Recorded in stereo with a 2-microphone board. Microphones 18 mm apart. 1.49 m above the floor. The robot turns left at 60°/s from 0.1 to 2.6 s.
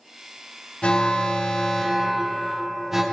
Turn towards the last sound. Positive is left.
turn(degrees=-20)